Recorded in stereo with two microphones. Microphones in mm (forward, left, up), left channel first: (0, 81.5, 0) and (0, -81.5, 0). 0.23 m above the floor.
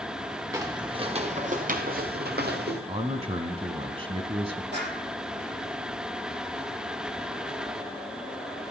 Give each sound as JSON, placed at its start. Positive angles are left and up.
{"t": 0.5, "sound": "footsteps", "side_deg": -20, "distance_m": 2.5}
{"t": 2.9, "sound": "a man speaking", "side_deg": -35, "distance_m": 1.4}
{"t": 4.7, "sound": "a clap", "side_deg": -80, "distance_m": 8.0}